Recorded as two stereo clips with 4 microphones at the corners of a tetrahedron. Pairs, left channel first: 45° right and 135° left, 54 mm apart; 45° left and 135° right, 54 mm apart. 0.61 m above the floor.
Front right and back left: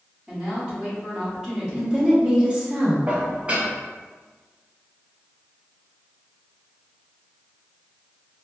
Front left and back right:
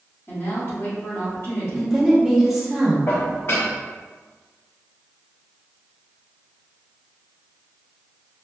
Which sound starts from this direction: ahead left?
A woman speaking, at 0.3 s.